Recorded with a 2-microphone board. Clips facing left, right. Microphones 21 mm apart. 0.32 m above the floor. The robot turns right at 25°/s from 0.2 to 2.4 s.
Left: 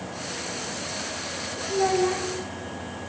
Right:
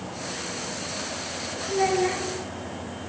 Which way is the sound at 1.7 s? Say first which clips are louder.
Even; 80° right.